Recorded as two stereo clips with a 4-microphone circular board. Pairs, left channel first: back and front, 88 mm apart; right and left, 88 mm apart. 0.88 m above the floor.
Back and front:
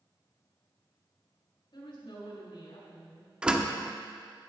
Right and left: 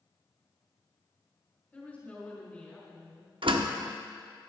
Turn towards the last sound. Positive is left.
turn(degrees=80)